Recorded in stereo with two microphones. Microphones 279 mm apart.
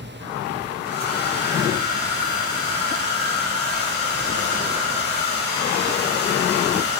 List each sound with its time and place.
0.8 s a hair dryer: 40° left (ahead or behind), 0.7 m